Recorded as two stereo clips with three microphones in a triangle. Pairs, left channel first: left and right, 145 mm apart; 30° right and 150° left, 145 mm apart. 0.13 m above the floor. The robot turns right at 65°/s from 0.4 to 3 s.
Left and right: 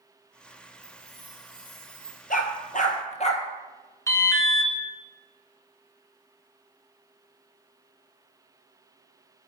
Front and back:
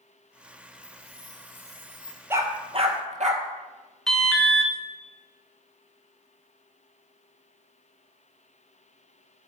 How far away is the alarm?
About 1.7 m.